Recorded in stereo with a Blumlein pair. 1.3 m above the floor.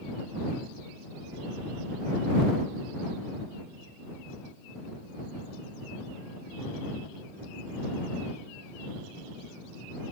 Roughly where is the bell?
No bell in this recording.